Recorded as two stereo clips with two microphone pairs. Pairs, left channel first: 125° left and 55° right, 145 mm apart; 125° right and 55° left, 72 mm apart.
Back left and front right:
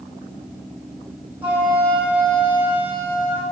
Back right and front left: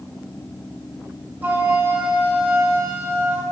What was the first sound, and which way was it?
A flute, 15° left.